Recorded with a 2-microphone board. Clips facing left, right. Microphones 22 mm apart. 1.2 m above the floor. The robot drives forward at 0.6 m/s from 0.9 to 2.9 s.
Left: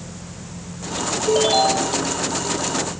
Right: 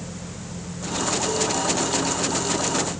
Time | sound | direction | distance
1.3 | a ringtone | 70° left (ahead or behind) | ?